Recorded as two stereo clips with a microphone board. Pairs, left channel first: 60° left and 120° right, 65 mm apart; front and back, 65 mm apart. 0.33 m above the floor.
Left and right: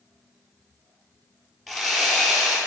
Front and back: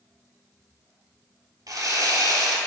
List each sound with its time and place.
1.7 s sawing: 145° left, 1.2 m